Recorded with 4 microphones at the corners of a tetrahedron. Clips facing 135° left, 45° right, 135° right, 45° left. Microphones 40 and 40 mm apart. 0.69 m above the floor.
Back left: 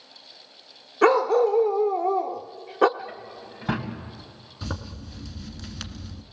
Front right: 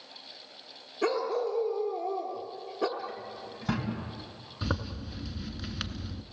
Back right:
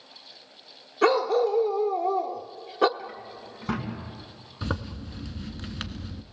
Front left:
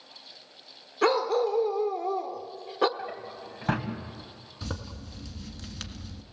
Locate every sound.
1.0 s a dog barking: 135° left, 0.8 m
3.0 s a drawer: 70° left, 3 m
4.6 s a zipper: 100° right, 1.2 m